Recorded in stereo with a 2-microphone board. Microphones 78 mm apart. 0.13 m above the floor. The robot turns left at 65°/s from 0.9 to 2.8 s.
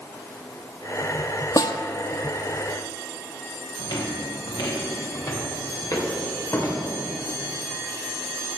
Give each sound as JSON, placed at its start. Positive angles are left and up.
{"t": 1.6, "sound": "a snare drum", "side_deg": 50, "distance_m": 0.9}
{"t": 3.8, "sound": "footsteps", "side_deg": 70, "distance_m": 2.0}